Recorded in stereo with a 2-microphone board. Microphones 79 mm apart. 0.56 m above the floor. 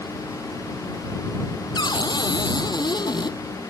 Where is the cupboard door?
60° left (ahead or behind).